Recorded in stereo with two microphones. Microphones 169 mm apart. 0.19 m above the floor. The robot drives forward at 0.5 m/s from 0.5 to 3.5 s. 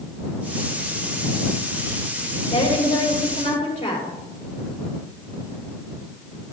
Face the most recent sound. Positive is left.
turn(degrees=35)  # may be behind; listen again after turning